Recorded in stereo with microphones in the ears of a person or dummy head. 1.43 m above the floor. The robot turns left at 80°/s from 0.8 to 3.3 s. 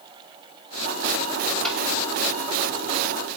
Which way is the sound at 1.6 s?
5° left (ahead or behind).